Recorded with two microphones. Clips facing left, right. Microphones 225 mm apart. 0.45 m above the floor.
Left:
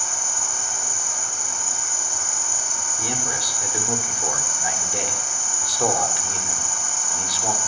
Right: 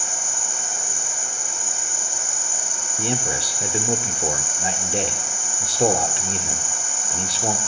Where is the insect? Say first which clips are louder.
Right 1 dB; 25° right (ahead or behind), 7 m.